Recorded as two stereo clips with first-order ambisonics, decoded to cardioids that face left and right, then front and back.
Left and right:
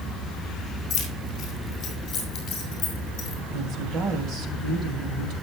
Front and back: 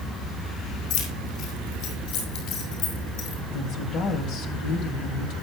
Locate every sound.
0.9 s keys jangling: 30° left, 4.5 m; by 3.4 s 35° left, 6 m
3.5 s a woman speaking: 35° right, 2.5 m